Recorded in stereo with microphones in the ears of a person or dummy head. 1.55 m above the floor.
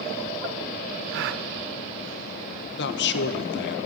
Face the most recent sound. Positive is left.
turn(degrees=65)  # may be behind; listen again after turning